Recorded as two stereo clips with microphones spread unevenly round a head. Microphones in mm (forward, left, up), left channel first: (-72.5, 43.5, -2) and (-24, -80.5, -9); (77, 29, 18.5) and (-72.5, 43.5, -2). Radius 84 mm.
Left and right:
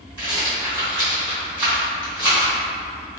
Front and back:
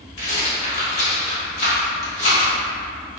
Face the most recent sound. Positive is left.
turn(degrees=15)